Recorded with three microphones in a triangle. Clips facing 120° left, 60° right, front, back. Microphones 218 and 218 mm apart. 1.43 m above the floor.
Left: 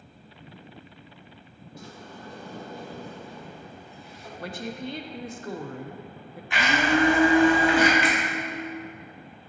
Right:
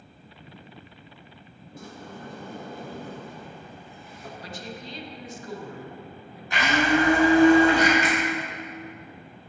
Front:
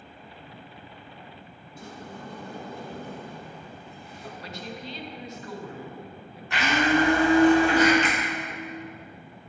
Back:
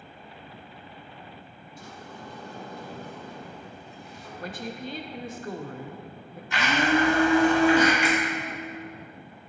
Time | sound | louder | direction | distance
1.8 | a sliding door | right 3 dB, front 3 dB | 25° right | 1.0 m
4.4 | a woman speaking | left 7 dB, back 5 dB | 145° left | 0.6 m
6.5 | a blender | right 1 dB, front 1 dB | 10° right | 2 m
8.0 | a finger snap | even, back 3 dB | 100° right | 1.2 m